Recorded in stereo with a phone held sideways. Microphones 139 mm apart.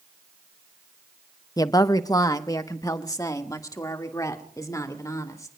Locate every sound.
1.6 s a woman speaking: 25° left (ahead or behind), 0.6 m